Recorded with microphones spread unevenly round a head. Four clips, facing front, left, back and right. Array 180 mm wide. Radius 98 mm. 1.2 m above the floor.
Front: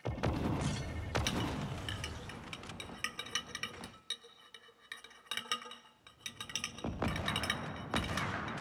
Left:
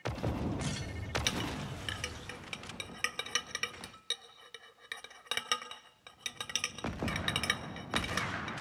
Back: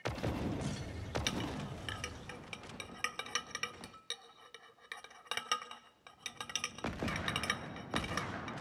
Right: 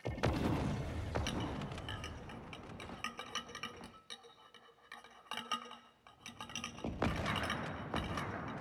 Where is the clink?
120° left, 3.5 m.